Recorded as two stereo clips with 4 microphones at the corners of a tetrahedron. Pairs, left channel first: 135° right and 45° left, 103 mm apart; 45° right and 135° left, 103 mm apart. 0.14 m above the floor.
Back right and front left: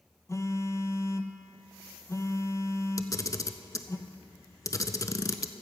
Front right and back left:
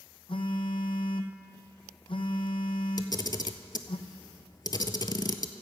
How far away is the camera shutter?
About 0.5 m.